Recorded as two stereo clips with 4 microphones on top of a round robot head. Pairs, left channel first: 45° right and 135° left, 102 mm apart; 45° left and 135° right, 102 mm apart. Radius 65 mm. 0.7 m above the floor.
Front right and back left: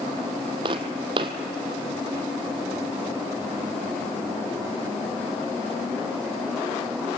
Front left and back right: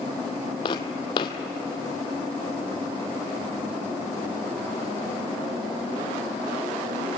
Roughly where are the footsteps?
Left.